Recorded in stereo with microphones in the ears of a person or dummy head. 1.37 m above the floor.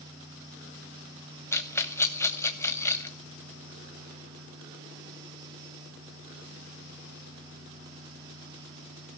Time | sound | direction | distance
1.5 | a rattle | 15° left (ahead or behind) | 0.8 m